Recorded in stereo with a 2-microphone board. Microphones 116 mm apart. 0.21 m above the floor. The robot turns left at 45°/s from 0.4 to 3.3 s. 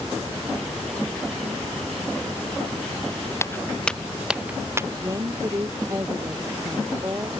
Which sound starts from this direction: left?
Footsteps, at 3.4 s.